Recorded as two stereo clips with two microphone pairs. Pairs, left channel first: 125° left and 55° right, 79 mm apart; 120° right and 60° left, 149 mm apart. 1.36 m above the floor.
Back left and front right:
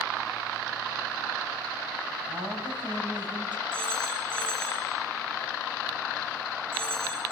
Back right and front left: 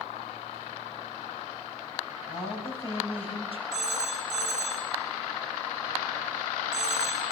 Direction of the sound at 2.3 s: 70° right.